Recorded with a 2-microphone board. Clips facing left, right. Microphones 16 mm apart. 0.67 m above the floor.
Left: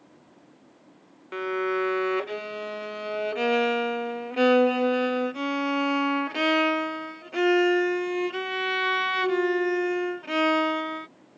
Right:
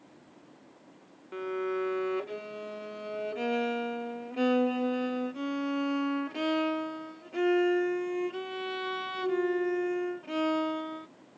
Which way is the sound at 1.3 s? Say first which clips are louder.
Left 6 dB; 35° left (ahead or behind).